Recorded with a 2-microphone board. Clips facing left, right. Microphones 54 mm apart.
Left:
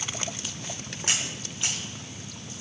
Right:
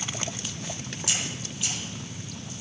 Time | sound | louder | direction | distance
1.1 | a camera shutter | left 3 dB | 40° left (ahead or behind) | 5 m